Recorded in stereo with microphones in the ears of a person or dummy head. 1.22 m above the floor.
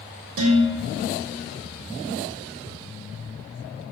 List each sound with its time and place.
0.4 s dishes clattering: 70° right (ahead or behind), 2.5 m